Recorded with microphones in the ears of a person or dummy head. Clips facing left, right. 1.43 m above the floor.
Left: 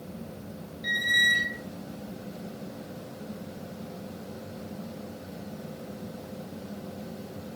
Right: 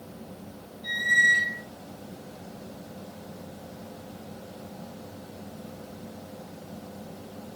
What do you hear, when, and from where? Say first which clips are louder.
0.8 s a squeak: right 2 dB; 25° left (ahead or behind), 0.6 m